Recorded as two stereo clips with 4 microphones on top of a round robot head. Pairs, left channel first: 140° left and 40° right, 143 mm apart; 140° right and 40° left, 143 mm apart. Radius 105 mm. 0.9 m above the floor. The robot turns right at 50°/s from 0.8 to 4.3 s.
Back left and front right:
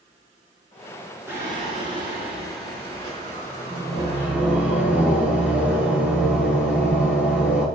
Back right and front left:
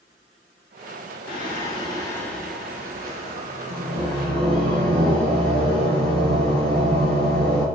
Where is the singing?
110° right, 5.5 m; by 7.7 s 40° left, 5.5 m.